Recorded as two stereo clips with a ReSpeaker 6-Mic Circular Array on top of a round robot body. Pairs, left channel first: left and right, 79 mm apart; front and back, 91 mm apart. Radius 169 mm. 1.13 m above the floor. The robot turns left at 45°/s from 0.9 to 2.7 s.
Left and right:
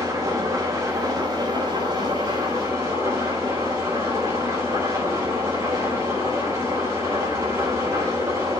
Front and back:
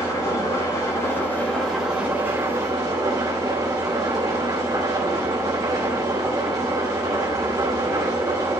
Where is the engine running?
55° right, 4 m; by 8.6 s 135° right, 4 m.